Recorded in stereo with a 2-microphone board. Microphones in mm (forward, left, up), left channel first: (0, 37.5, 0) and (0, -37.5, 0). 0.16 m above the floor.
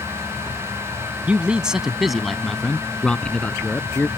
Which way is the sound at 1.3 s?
15° right (ahead or behind).